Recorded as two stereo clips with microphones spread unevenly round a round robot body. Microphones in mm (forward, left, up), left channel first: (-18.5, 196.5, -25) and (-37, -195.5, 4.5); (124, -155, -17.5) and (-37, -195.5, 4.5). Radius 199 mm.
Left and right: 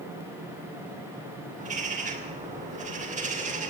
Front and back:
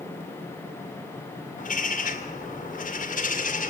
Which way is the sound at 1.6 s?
20° right.